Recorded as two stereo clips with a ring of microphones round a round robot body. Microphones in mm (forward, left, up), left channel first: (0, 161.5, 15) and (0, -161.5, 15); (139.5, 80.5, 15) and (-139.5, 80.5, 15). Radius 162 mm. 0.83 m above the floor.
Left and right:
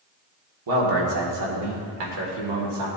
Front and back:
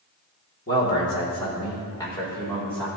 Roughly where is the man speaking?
Ahead right.